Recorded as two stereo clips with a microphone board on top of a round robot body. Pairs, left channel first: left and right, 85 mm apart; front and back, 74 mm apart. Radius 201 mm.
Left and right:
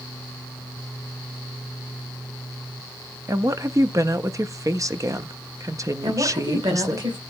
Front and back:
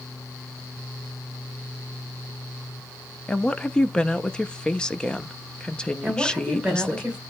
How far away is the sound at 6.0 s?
About 3.5 m.